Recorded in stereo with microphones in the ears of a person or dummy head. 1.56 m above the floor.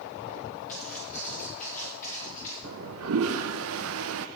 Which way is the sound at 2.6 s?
75° right (ahead or behind).